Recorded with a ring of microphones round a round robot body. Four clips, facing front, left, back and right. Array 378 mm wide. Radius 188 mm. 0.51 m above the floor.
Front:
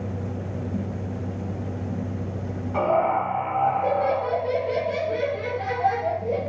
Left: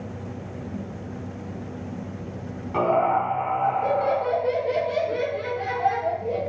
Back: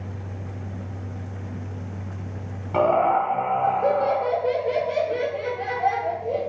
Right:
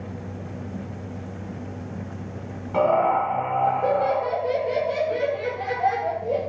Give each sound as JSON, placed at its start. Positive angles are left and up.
{"t": 2.7, "sound": "laughter", "azimuth_deg": 175, "distance_m": 1.8}